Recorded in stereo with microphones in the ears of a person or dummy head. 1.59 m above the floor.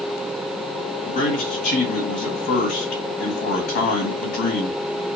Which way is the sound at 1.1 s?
50° left (ahead or behind).